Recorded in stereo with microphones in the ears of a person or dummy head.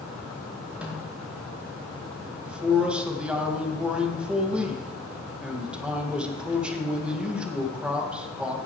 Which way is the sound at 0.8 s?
10° right (ahead or behind).